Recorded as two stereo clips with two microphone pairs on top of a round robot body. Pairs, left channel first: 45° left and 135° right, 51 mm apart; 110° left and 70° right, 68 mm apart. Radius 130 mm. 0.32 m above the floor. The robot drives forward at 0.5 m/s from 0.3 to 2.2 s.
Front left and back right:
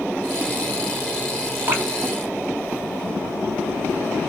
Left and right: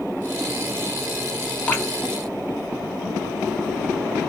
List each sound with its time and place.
1.7 s dripping: 175° left, 1.2 m